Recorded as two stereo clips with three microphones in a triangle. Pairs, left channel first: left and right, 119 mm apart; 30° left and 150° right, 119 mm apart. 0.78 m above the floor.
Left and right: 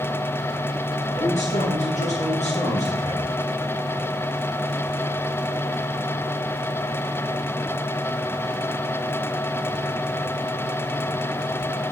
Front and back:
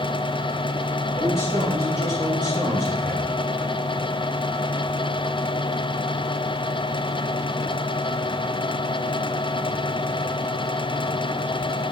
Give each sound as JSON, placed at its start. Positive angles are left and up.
{"t": 1.1, "sound": "a man speaking", "azimuth_deg": 100, "distance_m": 8.0}